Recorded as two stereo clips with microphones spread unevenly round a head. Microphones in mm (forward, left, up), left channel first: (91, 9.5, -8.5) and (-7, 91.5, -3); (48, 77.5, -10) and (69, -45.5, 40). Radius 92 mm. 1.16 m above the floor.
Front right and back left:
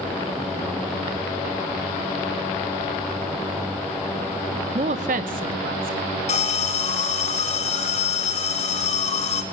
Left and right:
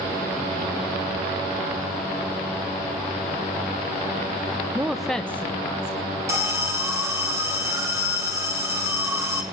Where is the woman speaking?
175° right, 0.8 m; by 6.1 s 165° left, 2.5 m.